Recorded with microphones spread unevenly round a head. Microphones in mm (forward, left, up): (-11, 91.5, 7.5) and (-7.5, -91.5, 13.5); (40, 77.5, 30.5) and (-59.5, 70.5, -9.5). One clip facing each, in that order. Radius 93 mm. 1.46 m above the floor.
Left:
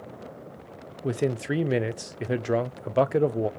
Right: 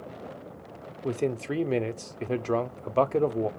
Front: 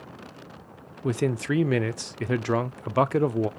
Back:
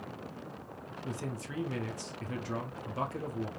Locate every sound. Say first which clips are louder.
1.0 s a man speaking: left 2 dB, front 15 dB; 15° left, 0.5 m